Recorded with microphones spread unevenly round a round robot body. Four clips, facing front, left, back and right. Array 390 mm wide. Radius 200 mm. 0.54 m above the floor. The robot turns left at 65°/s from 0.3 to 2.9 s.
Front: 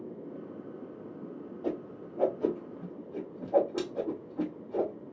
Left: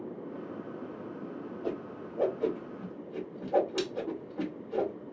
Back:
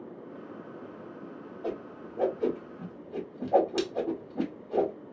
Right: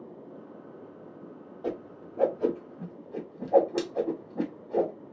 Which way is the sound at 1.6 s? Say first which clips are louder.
Right 3 dB, front 1 dB; 80° right.